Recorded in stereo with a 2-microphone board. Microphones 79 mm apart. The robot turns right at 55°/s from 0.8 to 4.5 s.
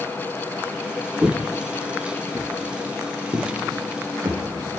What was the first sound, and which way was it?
Footsteps, 20° right (ahead or behind).